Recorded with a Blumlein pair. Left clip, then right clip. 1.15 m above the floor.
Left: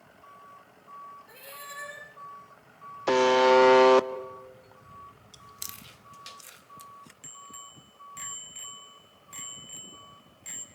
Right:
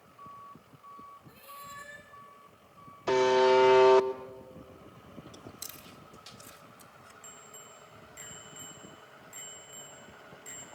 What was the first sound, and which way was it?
A cat meowing, 25° left.